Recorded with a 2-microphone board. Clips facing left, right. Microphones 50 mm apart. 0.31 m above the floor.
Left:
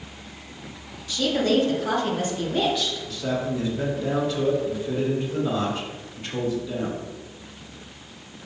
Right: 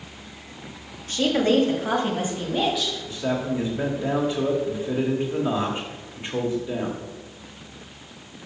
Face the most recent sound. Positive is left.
turn(degrees=-25)  # may be behind; listen again after turning